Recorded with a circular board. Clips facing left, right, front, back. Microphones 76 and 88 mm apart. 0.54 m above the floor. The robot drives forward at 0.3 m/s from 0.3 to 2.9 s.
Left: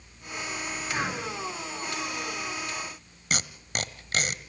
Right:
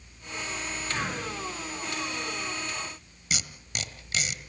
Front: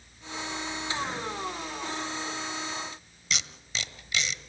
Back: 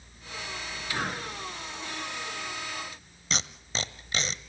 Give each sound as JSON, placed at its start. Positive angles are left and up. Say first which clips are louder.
{"t": 0.9, "sound": "breathing", "louder": "left 2 dB, back 2 dB", "azimuth_deg": 155, "distance_m": 8.5}
{"t": 3.3, "sound": "tape being pulled", "louder": "left 4 dB, back 2 dB", "azimuth_deg": 130, "distance_m": 1.0}